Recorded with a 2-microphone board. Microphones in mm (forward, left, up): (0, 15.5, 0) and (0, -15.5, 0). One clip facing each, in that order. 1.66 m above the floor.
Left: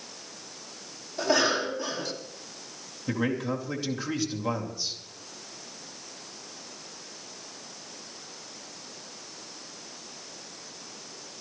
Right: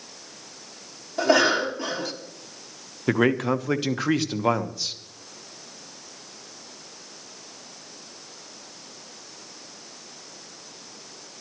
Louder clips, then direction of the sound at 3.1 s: Right 7 dB; 70° right (ahead or behind).